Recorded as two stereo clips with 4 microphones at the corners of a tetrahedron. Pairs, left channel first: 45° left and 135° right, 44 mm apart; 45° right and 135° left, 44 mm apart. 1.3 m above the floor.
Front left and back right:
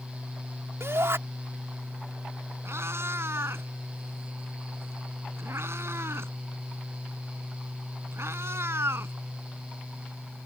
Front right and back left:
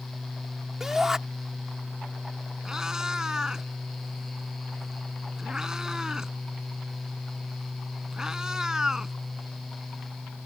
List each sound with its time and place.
0.8 s a shout: 145° right
2.6 s a cat meowing: 150° right